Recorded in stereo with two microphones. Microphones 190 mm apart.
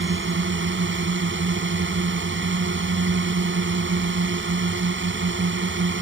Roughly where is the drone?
Right.